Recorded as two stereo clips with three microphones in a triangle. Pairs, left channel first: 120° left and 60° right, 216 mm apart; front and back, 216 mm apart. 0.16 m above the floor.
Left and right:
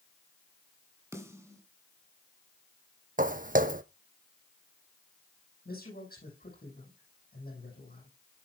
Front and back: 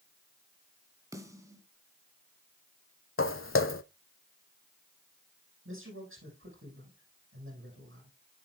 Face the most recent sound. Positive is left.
turn(degrees=165)